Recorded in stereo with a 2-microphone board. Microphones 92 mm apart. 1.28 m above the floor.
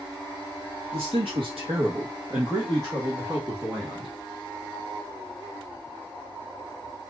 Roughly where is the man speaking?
Right.